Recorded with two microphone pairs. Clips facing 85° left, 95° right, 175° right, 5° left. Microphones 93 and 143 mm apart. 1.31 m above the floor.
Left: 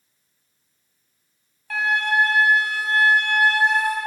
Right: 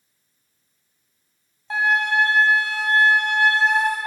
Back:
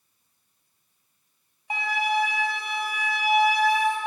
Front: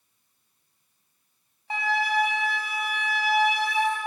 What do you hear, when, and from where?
1.7 s a flute: 115° right, 1.2 m